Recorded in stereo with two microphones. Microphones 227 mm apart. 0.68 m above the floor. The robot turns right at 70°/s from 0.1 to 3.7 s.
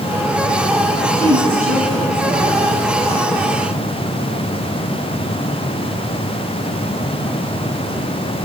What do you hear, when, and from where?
1.1 s a woman speaking: 100° right, 7 m; by 2.7 s 10° left, 7 m